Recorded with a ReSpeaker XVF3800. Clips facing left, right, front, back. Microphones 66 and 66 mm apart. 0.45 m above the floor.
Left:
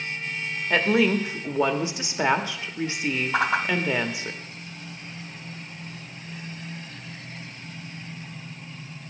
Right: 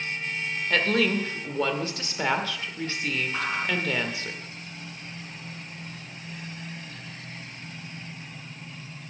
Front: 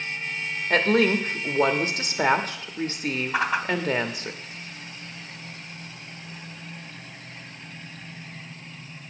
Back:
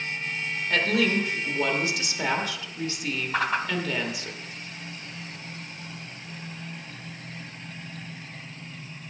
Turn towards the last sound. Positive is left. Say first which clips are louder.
# left 6 dB, even
turn(degrees=80)